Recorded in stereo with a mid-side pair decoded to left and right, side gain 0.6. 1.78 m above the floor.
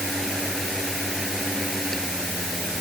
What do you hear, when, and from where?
0.0 s a fan: straight ahead